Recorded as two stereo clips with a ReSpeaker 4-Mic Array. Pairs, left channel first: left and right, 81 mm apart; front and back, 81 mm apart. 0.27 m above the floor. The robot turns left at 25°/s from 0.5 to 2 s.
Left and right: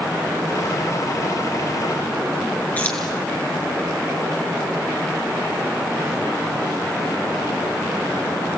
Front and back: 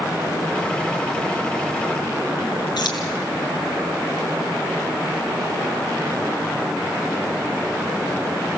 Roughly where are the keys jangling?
Ahead left.